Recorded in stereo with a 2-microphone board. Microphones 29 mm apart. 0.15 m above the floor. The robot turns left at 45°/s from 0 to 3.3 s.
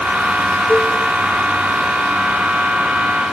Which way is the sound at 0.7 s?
20° left (ahead or behind).